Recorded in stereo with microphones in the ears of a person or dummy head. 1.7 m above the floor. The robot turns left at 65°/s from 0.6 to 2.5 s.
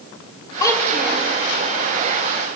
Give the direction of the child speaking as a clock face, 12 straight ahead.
11 o'clock.